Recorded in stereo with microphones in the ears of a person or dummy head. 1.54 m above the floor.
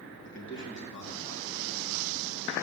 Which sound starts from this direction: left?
A man speaking, at 0.2 s.